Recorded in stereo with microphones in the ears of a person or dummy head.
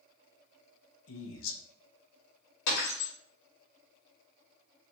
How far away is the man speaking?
About 1.0 m.